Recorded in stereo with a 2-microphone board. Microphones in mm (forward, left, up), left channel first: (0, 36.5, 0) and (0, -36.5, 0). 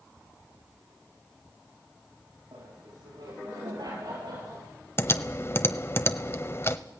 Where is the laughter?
80° right, 9.5 m; by 4.7 s 70° right (ahead or behind), 9 m.